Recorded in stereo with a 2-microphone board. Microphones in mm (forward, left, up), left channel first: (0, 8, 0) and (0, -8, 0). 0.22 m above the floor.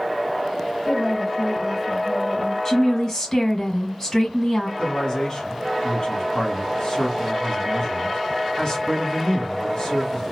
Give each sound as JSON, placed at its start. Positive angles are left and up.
{"t": 0.9, "sound": "a woman speaking", "side_deg": 15, "distance_m": 1.2}
{"t": 2.6, "sound": "a woman speaking", "side_deg": 30, "distance_m": 1.8}
{"t": 4.8, "sound": "a man speaking", "side_deg": 45, "distance_m": 1.5}